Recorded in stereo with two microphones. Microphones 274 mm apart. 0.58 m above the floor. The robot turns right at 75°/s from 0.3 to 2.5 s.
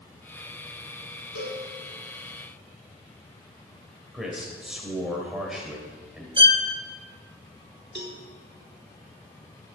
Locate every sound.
1.4 s a cowbell: 75° left (ahead or behind), 5.5 m; by 1.6 s 80° left, 5.5 m
4.1 s a man speaking: centre (ahead or behind), 3 m
6.4 s a violin: 20° right (ahead or behind), 0.7 m
8.0 s a cowbell: 40° right (ahead or behind), 1.5 m